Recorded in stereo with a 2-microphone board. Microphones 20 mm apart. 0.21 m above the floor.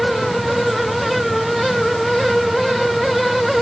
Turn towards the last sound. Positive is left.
No sound to turn to.